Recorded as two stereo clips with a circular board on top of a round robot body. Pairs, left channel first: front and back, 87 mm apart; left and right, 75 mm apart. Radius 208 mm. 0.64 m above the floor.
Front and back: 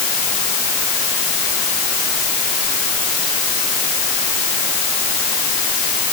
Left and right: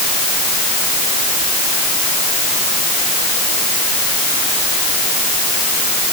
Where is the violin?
I don't hear a violin.